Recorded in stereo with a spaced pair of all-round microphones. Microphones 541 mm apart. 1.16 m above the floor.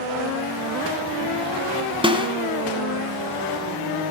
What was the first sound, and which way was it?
A snare drum, 10° right (ahead or behind).